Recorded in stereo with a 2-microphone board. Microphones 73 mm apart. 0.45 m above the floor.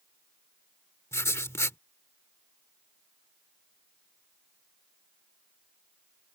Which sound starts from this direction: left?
Writing, at 1.1 s.